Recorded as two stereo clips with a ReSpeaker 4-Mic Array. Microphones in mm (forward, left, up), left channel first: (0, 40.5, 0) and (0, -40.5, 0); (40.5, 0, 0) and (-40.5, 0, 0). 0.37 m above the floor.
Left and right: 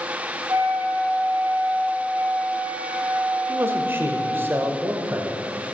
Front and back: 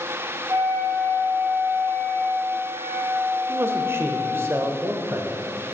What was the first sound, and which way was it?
A flute, 135° right.